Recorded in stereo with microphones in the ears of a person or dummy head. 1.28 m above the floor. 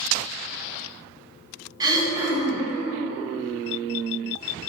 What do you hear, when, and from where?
1.8 s throat clearing: 20° right (ahead or behind), 1.4 m